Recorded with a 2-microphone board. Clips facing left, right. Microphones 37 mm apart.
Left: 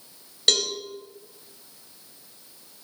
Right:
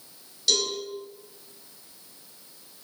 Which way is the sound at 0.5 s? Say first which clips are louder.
Left 3 dB; 55° left (ahead or behind).